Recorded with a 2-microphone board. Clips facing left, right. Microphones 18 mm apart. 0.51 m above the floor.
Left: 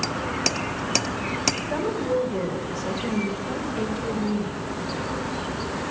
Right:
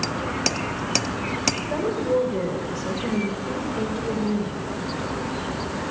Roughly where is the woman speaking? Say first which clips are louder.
Right 2 dB; centre.